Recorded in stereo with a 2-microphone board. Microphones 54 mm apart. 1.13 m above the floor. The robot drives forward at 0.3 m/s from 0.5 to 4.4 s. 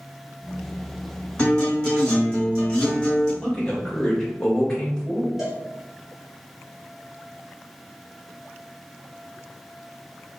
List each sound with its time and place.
1.4 s a guitar: 20° left (ahead or behind), 2.0 m; by 3.3 s 15° left (ahead or behind), 2.5 m
3.4 s a man speaking: 20° left (ahead or behind), 1.1 m
5.4 s a cowbell: 5° right (ahead or behind), 1.3 m